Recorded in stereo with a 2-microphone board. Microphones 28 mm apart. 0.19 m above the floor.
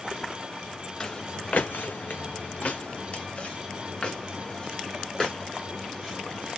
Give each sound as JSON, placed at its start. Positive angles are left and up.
{"t": 1.0, "sound": "footsteps", "side_deg": 30, "distance_m": 0.9}